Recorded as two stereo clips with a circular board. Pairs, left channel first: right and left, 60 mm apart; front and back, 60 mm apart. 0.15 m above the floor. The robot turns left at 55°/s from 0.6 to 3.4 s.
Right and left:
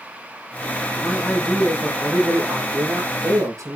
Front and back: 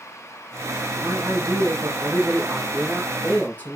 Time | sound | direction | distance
0.9 | a man speaking | 160° right | 5 m